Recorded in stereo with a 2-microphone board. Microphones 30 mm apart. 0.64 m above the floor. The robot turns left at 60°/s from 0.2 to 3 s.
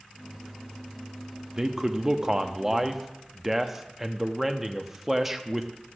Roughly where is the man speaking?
Centre.